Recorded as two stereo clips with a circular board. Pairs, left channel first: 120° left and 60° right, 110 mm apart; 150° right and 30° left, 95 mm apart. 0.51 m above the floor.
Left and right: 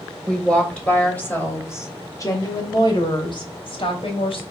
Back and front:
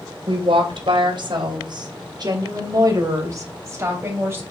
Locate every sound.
0.3 s a woman speaking: 35° left, 3 m; by 4.4 s 95° left, 3.5 m